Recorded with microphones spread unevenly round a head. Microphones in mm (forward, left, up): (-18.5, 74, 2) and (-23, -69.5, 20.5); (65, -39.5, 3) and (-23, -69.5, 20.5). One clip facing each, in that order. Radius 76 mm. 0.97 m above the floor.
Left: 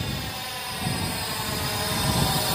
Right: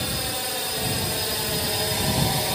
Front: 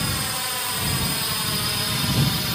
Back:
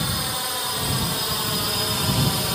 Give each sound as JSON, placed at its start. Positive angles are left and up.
{"t": 0.0, "sound": "a drone", "azimuth_deg": -85}